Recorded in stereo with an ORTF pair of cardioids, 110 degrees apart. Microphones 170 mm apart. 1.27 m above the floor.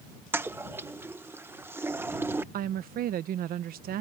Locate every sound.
0.3 s a toilet flushing: 15° right
2.5 s a woman speaking: 65° right